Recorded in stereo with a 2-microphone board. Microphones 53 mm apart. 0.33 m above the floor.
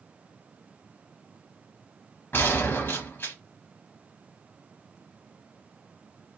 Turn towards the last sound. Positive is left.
turn(degrees=45)  # may be behind; listen again after turning